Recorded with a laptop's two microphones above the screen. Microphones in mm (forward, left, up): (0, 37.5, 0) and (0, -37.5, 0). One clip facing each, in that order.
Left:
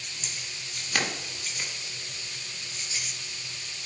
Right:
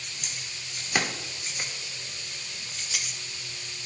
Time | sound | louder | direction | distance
0.2 | keys jangling | left 1 dB | 5° right (ahead or behind) | 1.5 m